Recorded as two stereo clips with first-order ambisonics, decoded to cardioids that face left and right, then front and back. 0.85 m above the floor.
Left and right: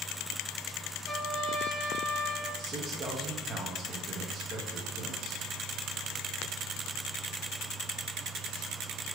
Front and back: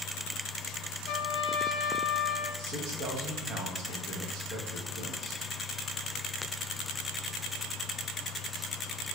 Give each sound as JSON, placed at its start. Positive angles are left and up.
{"t": 1.1, "sound": "a trumpet", "azimuth_deg": 5, "distance_m": 0.8}
{"t": 2.6, "sound": "a man speaking", "azimuth_deg": -150, "distance_m": 0.7}